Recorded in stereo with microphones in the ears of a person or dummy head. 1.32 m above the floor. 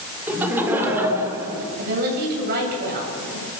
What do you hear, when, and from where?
0.3 s laughter: 5° right (ahead or behind), 3 m; by 1.7 s 10° right (ahead or behind), 4 m
1.8 s a woman speaking: 45° right (ahead or behind), 7.5 m